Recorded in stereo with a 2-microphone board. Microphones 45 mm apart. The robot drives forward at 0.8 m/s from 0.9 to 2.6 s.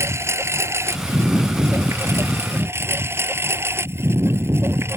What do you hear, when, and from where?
0.0 s a lawn mower: 75° right (ahead or behind); by 5.0 s 65° right (ahead or behind)